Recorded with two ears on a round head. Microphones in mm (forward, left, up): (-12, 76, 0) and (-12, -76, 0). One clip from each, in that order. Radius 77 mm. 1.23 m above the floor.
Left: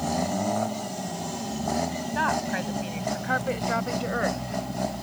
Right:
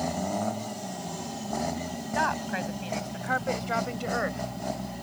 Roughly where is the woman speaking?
Centre.